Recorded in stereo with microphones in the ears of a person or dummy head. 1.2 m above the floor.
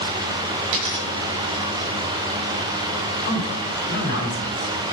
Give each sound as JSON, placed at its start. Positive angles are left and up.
{"t": 0.6, "sound": "a dropped coin", "side_deg": -65, "distance_m": 2.0}
{"t": 3.2, "sound": "a man speaking", "side_deg": 65, "distance_m": 4.5}